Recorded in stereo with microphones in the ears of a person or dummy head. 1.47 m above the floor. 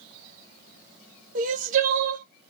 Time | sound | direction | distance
1.4 | crying | 45° right (ahead or behind) | 0.9 m